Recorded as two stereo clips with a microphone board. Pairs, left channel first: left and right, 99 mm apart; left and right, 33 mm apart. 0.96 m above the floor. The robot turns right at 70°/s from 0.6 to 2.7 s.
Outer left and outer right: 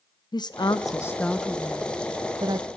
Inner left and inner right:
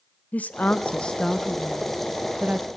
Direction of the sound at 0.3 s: 115° left.